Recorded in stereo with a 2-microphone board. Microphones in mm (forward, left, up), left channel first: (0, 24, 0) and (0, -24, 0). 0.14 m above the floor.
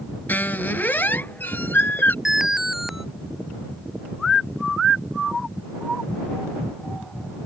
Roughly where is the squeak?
Left.